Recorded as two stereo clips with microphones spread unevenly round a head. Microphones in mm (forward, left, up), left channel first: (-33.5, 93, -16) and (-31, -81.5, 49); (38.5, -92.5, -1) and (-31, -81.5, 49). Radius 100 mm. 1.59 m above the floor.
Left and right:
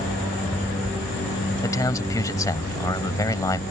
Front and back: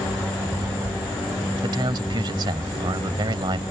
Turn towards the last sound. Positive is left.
turn(degrees=165)